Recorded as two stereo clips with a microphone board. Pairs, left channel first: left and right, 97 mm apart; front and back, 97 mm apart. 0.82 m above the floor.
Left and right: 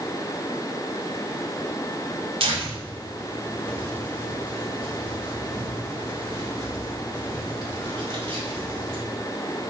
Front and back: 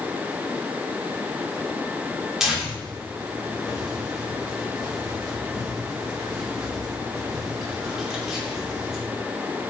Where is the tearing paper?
95° right, 2.5 m.